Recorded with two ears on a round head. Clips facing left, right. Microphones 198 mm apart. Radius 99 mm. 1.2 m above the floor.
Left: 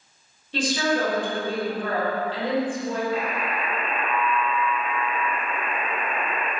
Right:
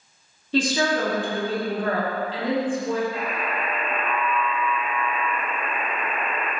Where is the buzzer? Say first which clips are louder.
Left 1 dB; 60° left (ahead or behind), 0.8 m.